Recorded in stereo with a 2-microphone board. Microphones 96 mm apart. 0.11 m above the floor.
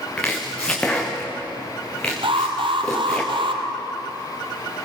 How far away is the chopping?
About 4 m.